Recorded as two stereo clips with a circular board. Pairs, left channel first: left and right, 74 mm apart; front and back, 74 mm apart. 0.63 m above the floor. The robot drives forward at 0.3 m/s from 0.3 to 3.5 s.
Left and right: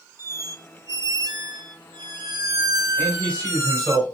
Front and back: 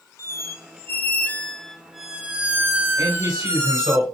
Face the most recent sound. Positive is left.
turn(degrees=160)